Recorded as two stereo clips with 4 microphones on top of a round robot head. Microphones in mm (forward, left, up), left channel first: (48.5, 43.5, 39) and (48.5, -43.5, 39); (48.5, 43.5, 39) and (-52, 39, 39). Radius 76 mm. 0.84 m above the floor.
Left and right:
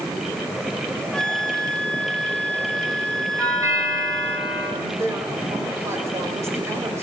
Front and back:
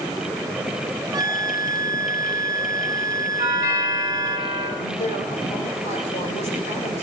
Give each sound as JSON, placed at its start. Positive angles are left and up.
{"t": 1.1, "sound": "a flute", "azimuth_deg": 170, "distance_m": 1.0}
{"t": 3.4, "sound": "a doorbell", "azimuth_deg": -35, "distance_m": 8.0}
{"t": 4.8, "sound": "a woman speaking", "azimuth_deg": -30, "distance_m": 3.5}